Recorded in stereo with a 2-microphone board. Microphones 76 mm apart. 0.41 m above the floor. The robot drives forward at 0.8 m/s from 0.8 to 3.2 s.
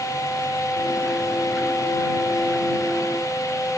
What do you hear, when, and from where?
Only background noise.